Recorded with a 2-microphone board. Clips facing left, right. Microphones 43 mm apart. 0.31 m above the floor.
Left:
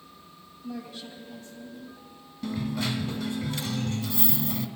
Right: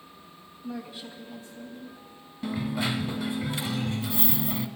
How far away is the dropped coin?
About 0.6 m.